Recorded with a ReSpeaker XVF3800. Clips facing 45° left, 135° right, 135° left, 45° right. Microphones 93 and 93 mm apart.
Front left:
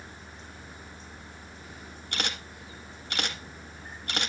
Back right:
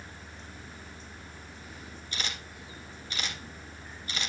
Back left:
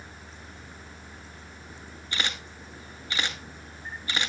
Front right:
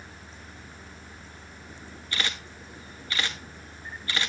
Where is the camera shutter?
65° left, 1.3 m.